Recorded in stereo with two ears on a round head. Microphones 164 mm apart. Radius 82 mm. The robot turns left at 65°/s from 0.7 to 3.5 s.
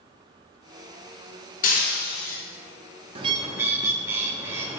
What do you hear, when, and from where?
1.6 s breaking glass: 135° left, 1.3 m; by 2.4 s 85° left, 1.3 m
3.1 s a bird: 30° right (ahead or behind), 0.5 m; by 4.8 s 15° right (ahead or behind), 0.5 m